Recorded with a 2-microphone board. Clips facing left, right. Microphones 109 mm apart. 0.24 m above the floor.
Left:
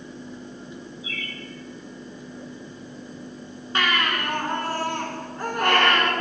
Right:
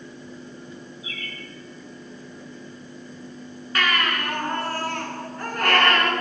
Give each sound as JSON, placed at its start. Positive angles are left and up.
{"t": 1.0, "sound": "a bird", "side_deg": -70, "distance_m": 3.0}
{"t": 3.8, "sound": "a baby crying", "side_deg": 25, "distance_m": 2.5}